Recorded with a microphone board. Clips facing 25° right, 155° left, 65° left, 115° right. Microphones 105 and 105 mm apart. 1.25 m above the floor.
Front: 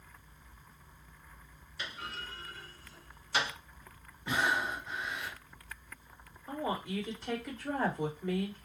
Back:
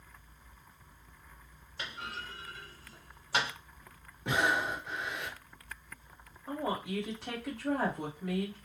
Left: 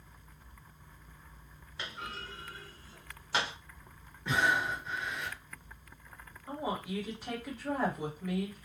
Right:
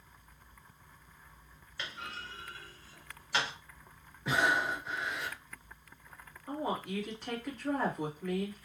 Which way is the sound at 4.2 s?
160° left.